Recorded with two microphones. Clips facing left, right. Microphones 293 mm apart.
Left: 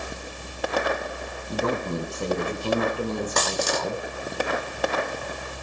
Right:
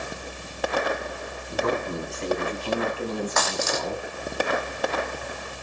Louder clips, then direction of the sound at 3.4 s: Left 1 dB; 40° left (ahead or behind).